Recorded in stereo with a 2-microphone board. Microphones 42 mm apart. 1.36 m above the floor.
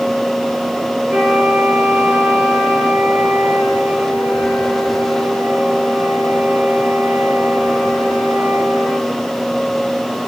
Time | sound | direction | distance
1.1 | a flute | 70° right (ahead or behind) | 4 m